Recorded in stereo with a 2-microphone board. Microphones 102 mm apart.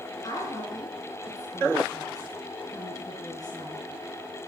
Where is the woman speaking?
40° left (ahead or behind), 3.5 m.